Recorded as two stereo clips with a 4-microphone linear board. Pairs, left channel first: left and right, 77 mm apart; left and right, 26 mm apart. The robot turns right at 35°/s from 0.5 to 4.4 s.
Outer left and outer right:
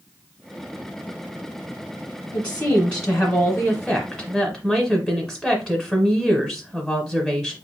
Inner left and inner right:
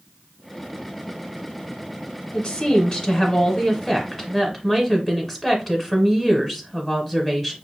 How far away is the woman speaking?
About 1.0 m.